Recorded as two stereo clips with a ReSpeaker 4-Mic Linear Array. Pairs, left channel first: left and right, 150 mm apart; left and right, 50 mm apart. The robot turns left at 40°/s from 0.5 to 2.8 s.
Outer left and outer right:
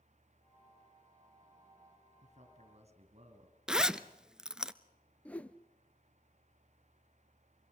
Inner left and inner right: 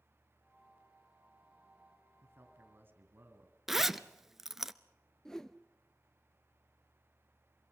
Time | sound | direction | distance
2.2 | a man speaking | 50° right (ahead or behind) | 2.5 m
3.7 | a zipper | 5° right (ahead or behind) | 0.6 m
5.2 | a whoosh | 10° left (ahead or behind) | 0.8 m